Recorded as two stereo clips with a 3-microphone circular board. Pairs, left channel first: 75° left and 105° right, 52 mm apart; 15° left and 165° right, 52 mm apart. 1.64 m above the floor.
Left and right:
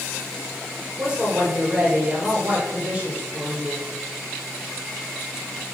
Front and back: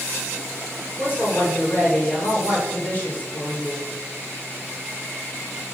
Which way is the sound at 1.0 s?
40° right.